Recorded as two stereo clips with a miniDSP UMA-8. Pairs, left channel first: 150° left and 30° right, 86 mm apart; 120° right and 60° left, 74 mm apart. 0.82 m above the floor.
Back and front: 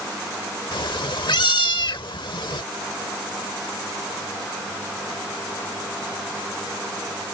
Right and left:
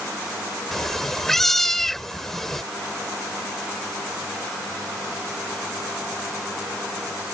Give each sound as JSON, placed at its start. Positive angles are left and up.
{"t": 0.7, "sound": "a cat meowing", "azimuth_deg": 155}